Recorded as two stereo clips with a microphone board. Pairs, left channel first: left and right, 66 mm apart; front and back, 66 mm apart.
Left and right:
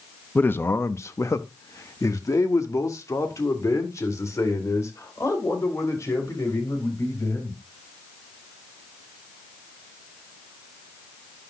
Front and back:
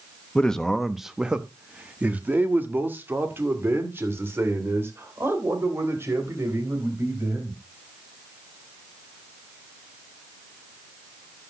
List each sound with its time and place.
0.3 s a man speaking: 60° left, 0.8 m; by 7.6 s 130° left, 4.5 m